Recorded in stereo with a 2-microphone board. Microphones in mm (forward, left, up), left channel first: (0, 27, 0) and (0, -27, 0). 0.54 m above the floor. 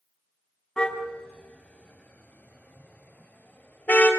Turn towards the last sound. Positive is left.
turn(degrees=35)  # may be behind; listen again after turning